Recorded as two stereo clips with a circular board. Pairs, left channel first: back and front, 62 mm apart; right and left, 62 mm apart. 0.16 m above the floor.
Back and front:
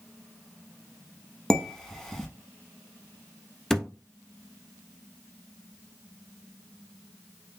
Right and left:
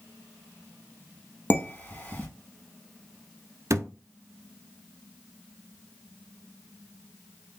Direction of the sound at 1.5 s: 105° right.